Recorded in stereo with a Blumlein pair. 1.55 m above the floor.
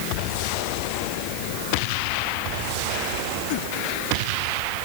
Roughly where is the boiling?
No boiling in this recording.